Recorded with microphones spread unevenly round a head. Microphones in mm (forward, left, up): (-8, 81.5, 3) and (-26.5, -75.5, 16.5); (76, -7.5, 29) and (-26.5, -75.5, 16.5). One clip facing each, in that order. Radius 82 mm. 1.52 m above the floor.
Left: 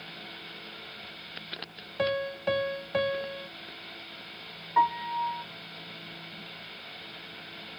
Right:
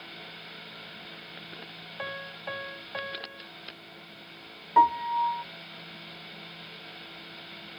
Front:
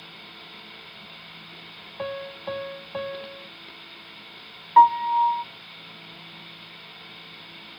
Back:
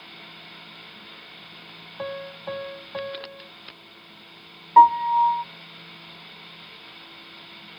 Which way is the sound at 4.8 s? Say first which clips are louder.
Right 4 dB, back 1 dB; 80° right.